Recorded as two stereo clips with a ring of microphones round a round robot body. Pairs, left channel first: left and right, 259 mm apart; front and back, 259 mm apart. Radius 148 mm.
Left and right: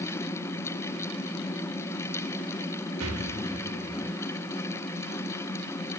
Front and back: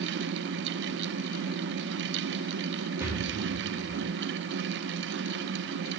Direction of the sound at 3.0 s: 100° right.